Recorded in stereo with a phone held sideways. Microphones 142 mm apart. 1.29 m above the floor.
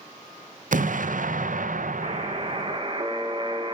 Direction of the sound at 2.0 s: 40° right (ahead or behind).